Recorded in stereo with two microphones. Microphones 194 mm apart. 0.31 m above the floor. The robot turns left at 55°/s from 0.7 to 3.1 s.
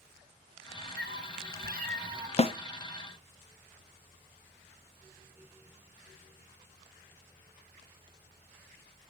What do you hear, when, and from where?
1.0 s a cat meowing: 80° right, 0.8 m; by 2.3 s 150° right, 0.8 m
2.4 s a snare drum: 35° left (ahead or behind), 0.5 m; by 2.5 s 25° left (ahead or behind), 0.5 m